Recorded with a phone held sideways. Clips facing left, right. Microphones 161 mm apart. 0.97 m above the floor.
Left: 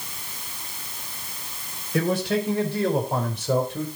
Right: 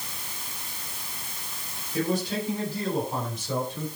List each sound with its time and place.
1.9 s a man speaking: 85° left, 4 m; by 3.9 s 65° left (ahead or behind), 4 m